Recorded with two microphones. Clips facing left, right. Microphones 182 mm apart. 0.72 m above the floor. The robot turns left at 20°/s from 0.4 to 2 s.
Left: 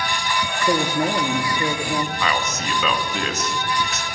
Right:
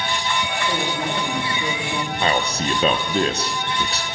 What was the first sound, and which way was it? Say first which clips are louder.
A woman speaking: left 8 dB; 55° left (ahead or behind).